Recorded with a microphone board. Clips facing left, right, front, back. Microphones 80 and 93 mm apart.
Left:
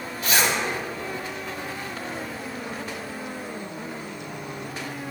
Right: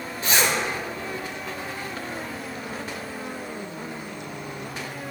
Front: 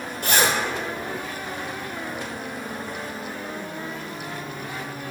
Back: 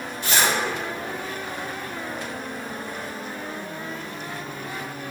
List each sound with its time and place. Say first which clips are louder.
0.2 s a zipper: even, front 1 dB; 35° right, 2 m